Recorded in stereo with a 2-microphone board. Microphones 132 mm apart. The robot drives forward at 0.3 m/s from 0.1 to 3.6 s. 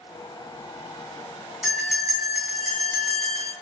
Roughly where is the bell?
Centre.